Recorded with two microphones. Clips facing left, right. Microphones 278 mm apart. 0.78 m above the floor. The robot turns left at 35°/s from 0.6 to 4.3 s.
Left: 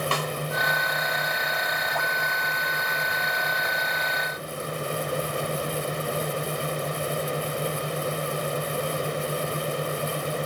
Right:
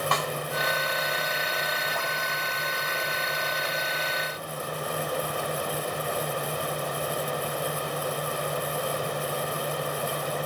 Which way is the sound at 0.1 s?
35° left (ahead or behind).